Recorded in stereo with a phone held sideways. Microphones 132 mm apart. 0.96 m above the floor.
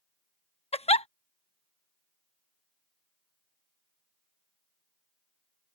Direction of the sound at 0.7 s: 50° left (ahead or behind).